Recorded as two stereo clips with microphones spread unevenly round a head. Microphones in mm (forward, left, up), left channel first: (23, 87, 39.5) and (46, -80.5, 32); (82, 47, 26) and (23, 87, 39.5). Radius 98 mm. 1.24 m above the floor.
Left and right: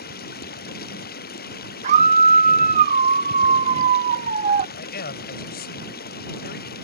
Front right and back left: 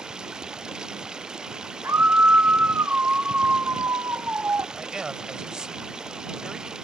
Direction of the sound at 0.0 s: 65° left.